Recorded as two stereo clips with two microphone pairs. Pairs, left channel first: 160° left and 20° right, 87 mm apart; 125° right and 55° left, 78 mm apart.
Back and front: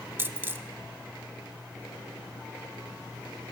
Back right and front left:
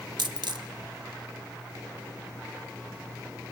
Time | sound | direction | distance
0.2 | a dropped coin | 45° left | 0.5 m